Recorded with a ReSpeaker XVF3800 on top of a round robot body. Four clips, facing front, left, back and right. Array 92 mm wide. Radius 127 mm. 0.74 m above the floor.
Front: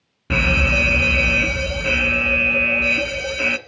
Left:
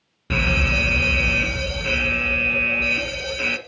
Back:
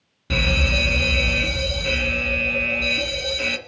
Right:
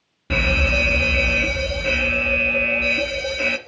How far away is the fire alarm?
About 1.7 m.